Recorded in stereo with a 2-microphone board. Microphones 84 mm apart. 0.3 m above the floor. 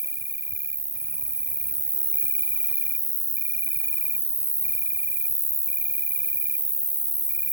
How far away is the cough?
No cough in this recording.